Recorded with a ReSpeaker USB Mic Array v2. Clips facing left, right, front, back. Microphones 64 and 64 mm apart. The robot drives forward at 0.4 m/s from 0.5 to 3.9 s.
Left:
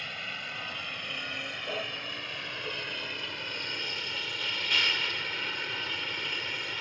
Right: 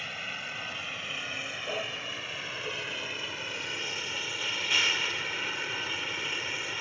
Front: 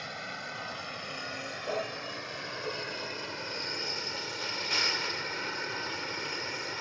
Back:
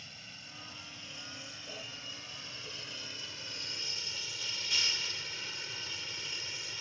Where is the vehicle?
5° right.